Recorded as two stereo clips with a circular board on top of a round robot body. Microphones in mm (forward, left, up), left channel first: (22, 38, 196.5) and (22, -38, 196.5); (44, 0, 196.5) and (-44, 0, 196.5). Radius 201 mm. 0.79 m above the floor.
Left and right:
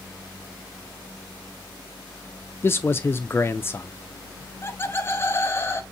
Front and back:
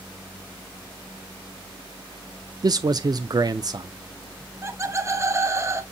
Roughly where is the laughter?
Behind left.